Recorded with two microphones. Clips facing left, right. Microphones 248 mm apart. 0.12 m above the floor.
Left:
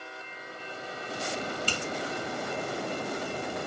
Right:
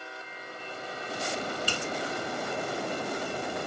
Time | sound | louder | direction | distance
1.7 | a finger snap | even | 10° right (ahead or behind) | 0.9 m